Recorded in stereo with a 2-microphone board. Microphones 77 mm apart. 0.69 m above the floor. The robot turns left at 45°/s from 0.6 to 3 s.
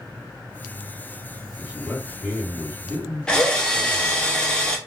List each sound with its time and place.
1.6 s a man speaking: 145° right, 1.7 m; by 4.3 s 150° left, 1.7 m
3.3 s a drill: 10° left (ahead or behind), 0.5 m